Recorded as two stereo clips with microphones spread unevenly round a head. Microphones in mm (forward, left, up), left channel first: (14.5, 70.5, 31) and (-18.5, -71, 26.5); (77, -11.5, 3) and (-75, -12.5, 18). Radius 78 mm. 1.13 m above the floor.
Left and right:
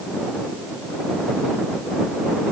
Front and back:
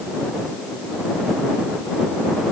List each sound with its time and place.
Only background noise.